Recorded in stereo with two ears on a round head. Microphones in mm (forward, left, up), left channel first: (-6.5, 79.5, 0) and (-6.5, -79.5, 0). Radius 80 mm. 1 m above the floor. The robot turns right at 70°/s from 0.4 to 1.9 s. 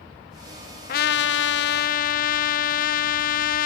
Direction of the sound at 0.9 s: 55° left.